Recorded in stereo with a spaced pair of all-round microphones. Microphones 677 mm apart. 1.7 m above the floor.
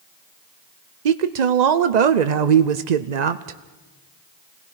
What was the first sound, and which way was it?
A woman speaking, 80° right.